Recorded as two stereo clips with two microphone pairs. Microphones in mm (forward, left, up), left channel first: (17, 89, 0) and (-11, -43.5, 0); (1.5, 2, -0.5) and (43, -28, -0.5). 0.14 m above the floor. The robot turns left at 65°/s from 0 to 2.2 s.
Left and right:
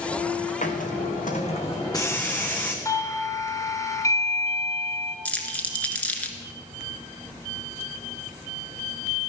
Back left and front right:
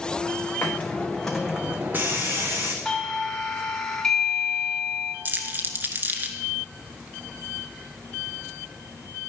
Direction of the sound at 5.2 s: Straight ahead.